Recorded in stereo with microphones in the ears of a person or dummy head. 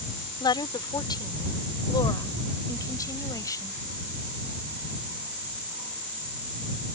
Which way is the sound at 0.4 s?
20° left (ahead or behind).